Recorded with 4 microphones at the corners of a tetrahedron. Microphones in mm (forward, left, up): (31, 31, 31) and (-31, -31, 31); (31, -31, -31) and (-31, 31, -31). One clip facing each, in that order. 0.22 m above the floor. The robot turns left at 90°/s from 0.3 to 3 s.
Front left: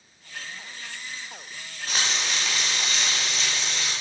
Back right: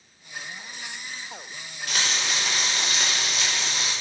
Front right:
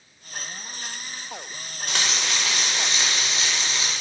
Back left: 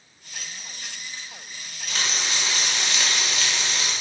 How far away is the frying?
About 6.5 m.